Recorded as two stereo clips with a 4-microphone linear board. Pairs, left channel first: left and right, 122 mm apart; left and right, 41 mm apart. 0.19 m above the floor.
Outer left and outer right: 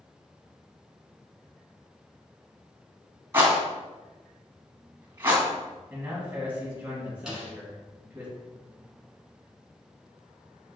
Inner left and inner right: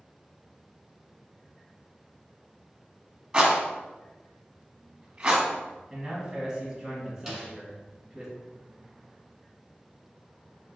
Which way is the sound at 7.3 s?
5° right (ahead or behind).